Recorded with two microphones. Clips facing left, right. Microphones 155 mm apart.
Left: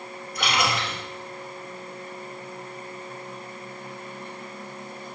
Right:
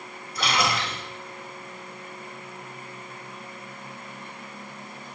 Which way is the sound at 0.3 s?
35° right (ahead or behind).